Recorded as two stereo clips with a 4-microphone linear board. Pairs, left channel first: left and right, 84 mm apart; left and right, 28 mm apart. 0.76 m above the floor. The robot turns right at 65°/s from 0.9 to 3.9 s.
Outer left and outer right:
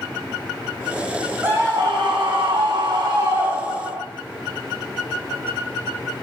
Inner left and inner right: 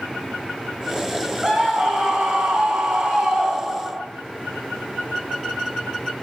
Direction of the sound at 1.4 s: 155° right.